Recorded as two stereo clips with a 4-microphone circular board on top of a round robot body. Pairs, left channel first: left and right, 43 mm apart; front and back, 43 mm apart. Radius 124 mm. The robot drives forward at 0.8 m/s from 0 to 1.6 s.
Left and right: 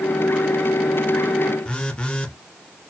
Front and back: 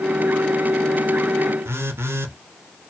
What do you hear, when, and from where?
1.6 s a phone buzzing: 155° left, 1.2 m